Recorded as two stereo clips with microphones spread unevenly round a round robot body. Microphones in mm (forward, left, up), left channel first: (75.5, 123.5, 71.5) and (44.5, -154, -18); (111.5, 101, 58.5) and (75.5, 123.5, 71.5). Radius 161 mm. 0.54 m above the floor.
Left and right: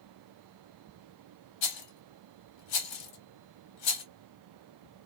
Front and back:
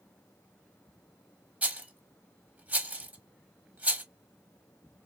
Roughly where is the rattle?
Left.